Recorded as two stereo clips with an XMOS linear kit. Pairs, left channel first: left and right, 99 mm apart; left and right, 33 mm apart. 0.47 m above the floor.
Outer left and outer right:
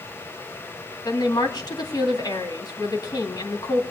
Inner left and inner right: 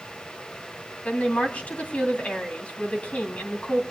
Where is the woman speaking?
45° left (ahead or behind), 2.5 m.